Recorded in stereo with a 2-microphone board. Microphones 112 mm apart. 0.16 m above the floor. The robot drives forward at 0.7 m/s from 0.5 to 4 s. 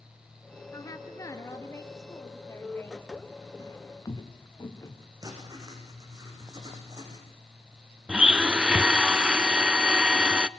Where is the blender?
10° right (ahead or behind), 0.6 m.